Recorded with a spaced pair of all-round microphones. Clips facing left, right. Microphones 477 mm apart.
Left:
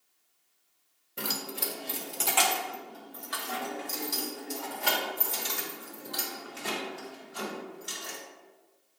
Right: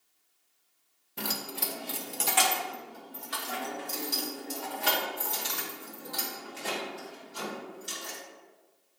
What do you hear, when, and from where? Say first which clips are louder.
1.2 s keys jangling: left 1 dB; 5° right (ahead or behind), 0.8 m; by 8.2 s 60° right (ahead or behind), 4 m